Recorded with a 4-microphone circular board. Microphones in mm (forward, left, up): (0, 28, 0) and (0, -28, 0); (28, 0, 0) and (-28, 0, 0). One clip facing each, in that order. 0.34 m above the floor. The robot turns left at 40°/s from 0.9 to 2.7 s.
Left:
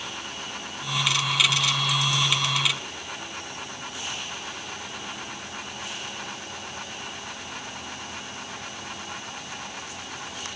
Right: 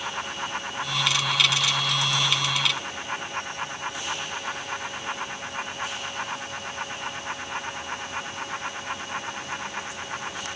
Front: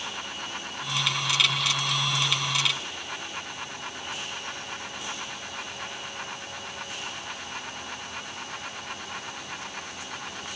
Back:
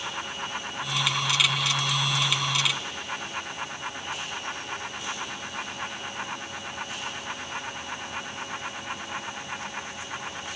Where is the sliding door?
No sliding door in this recording.